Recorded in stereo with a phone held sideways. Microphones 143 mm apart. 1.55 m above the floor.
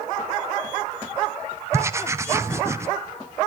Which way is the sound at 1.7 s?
20° right (ahead or behind).